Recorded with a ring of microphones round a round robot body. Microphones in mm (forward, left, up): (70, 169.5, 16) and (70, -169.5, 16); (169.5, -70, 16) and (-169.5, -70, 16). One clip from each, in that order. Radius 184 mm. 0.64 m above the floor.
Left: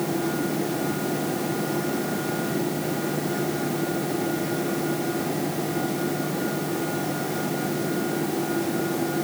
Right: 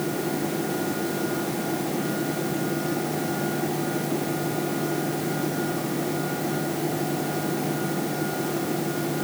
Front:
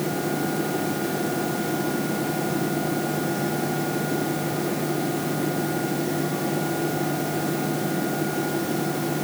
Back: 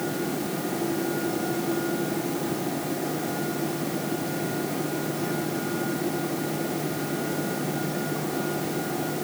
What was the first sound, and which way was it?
Only background noise.